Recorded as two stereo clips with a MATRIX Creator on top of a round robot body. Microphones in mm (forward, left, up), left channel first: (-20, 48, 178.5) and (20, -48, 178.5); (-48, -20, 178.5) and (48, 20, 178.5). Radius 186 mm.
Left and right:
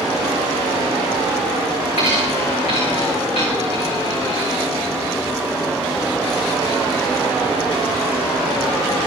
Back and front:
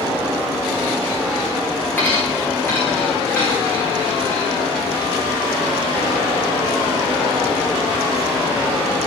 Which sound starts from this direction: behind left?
A dropped coin, at 2.0 s.